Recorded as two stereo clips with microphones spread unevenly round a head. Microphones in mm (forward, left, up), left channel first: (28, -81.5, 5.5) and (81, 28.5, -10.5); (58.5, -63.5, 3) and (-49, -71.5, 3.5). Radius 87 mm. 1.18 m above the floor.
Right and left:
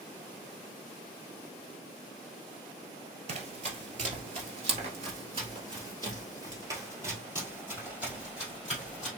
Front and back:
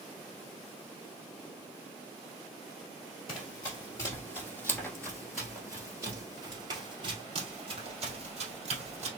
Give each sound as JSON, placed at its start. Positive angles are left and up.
{"t": 3.3, "sound": "running footsteps", "azimuth_deg": 45, "distance_m": 1.7}